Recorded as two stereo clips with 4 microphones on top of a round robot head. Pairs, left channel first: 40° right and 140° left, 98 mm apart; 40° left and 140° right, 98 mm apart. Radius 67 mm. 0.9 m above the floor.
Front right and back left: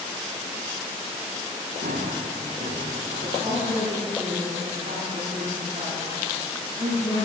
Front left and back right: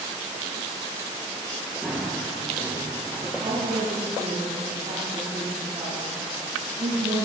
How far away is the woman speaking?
About 6.5 m.